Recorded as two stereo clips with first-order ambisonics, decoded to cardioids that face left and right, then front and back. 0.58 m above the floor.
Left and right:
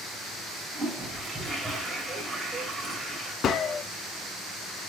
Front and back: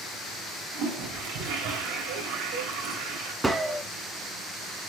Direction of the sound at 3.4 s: 110° left.